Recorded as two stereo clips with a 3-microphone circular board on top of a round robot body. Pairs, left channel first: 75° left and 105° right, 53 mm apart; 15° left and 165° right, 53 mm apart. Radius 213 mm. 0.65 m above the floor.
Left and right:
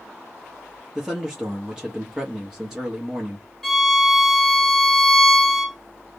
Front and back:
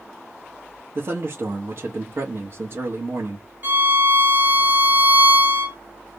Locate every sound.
0.9 s a man speaking: 175° left, 1.1 m
3.6 s a violin: 155° left, 1.7 m